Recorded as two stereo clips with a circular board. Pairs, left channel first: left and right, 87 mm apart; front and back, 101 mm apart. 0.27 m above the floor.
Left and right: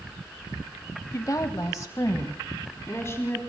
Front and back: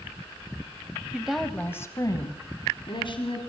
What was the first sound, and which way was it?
A woman speaking, 110° left.